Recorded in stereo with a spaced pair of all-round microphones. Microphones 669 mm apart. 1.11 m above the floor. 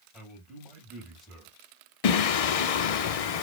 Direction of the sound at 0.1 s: Centre (ahead or behind).